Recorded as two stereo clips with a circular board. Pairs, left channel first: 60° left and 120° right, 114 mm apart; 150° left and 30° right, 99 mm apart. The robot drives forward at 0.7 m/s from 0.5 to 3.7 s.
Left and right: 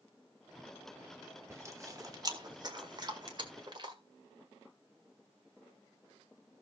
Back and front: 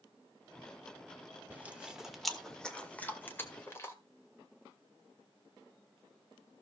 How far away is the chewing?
About 1.4 m.